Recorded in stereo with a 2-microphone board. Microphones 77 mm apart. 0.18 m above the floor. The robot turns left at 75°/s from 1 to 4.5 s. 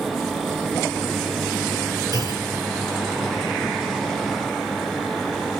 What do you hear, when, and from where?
2.1 s a clunk: 55° right (ahead or behind), 1.8 m; by 2.5 s 40° right (ahead or behind), 1.8 m